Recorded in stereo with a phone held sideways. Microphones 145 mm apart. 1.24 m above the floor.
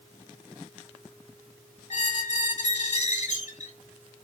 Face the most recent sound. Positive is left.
turn(degrees=55)  # may be behind; listen again after turning